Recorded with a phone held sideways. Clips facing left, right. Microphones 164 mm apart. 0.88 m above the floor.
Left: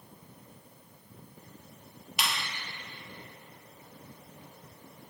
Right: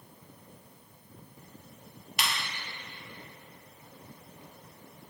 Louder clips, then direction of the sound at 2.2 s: Even; 5° left (ahead or behind).